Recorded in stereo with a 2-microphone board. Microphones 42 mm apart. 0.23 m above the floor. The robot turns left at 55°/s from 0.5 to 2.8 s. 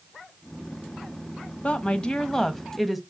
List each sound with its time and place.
1.6 s a woman speaking: 60° left, 1.3 m; by 3.0 s 5° right, 1.3 m